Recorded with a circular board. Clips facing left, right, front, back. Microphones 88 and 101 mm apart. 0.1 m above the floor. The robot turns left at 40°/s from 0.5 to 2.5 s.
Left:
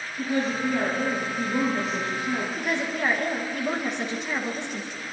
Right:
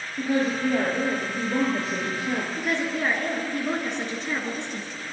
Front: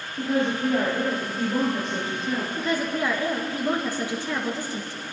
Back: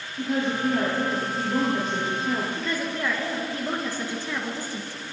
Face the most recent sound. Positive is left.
turn(degrees=15)